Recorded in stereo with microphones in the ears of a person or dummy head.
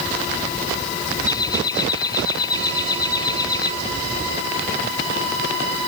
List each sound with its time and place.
1.3 s laughter: 20° left (ahead or behind)